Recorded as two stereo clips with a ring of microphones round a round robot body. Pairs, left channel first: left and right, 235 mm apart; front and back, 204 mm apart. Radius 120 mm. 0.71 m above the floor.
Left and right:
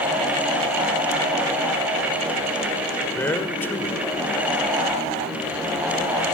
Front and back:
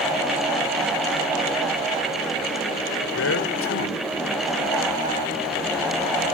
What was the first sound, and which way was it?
A man speaking, 10° left.